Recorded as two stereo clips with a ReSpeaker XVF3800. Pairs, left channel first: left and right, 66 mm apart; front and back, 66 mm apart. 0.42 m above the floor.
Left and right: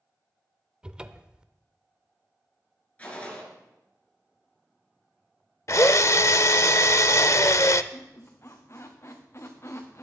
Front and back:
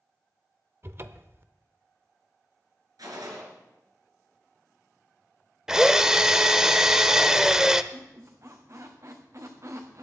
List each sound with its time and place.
0.8 s a cupboard door: 160° right, 0.6 m
3.0 s a gunshot: 160° left, 4 m
5.7 s a drill: 100° left, 0.6 m
7.9 s a squeak: 140° left, 2 m